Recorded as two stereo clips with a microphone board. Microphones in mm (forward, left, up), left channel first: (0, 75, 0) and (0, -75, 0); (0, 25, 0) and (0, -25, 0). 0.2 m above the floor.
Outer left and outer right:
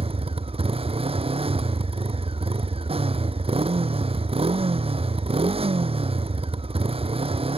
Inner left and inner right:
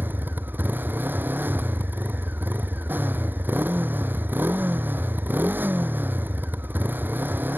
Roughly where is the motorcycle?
Right.